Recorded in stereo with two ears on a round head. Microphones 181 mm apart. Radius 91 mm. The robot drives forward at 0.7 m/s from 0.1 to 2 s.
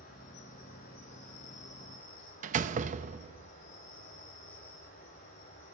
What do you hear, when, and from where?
0.0 s an insect: 50° left (ahead or behind), 8 m; by 5.8 s 40° left (ahead or behind), 8.5 m
2.4 s a door slam: 40° right (ahead or behind), 0.7 m